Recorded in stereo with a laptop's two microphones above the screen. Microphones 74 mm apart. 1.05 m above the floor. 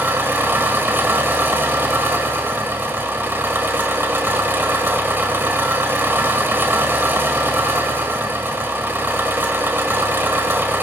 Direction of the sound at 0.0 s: 30° right (ahead or behind).